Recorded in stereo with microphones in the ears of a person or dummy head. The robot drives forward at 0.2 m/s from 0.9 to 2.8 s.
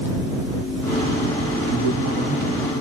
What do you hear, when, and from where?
1.7 s a man speaking: 65° right (ahead or behind), 1.2 m; by 2.6 s 70° right (ahead or behind), 1.1 m